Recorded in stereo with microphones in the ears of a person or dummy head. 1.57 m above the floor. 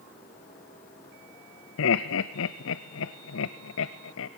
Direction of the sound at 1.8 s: 70° left (ahead or behind).